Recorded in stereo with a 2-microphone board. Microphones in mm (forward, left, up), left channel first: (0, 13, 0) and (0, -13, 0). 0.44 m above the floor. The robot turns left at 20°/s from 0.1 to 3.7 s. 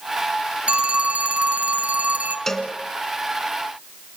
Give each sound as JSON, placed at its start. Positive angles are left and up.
{"t": 0.7, "sound": "a phone ringing", "azimuth_deg": -50, "distance_m": 2.0}
{"t": 2.5, "sound": "a cowbell", "side_deg": 15, "distance_m": 2.5}